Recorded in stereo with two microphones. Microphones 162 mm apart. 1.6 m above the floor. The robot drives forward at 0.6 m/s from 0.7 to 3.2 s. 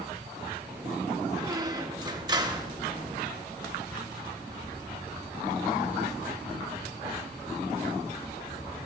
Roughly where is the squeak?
Right.